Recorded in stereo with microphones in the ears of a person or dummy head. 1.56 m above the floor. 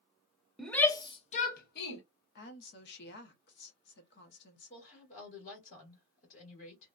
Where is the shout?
Centre (ahead or behind), 0.7 m; by 2.0 s 60° left (ahead or behind), 1.0 m.